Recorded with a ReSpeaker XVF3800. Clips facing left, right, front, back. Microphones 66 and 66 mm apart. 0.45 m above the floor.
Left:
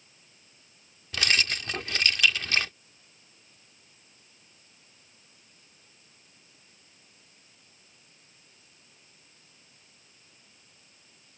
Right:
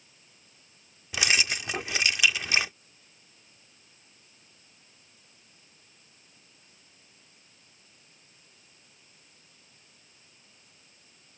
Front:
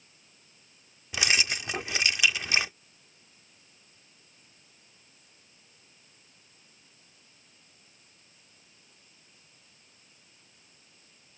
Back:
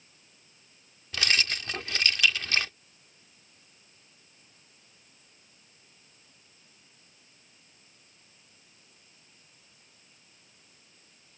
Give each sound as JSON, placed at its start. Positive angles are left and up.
{"t": 1.1, "sound": "keys jangling", "azimuth_deg": -40}